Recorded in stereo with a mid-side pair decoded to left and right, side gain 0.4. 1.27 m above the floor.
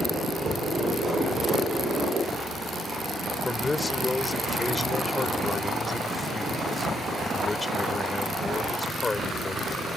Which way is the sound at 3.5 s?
25° left.